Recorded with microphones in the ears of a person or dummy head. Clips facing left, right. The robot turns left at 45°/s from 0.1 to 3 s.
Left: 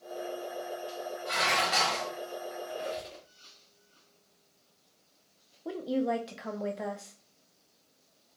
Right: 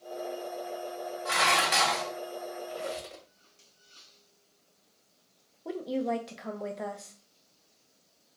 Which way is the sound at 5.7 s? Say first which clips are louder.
Left 1 dB; centre (ahead or behind).